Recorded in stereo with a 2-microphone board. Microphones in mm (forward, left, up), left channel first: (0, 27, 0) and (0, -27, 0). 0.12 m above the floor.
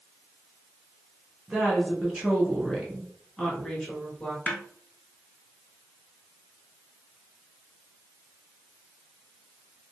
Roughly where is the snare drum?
Left.